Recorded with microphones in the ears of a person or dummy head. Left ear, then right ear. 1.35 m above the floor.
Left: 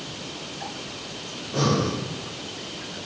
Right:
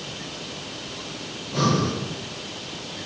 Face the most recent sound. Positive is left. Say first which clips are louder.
# right 1 dB
turn(degrees=0)  # may be behind; listen again after turning